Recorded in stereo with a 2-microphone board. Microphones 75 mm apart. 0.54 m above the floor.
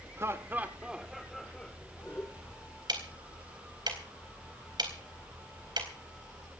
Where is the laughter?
35° right (ahead or behind), 1.4 m; by 2.6 s 35° left (ahead or behind), 2 m.